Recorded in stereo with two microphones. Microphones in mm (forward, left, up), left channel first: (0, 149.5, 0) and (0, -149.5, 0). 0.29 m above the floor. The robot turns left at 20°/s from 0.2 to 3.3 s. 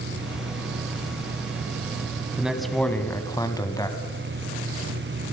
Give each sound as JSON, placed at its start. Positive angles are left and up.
{"t": 2.4, "sound": "a man speaking", "side_deg": -5, "distance_m": 2.0}